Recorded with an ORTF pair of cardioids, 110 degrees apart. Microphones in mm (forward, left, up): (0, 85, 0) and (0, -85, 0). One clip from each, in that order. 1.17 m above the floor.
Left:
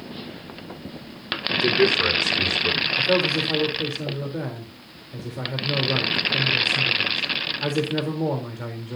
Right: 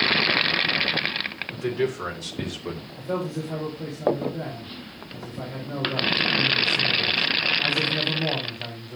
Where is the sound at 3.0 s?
60° left, 3.5 m.